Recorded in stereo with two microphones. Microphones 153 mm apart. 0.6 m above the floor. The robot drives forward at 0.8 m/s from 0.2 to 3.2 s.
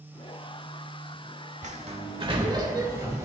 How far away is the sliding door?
About 1.0 m.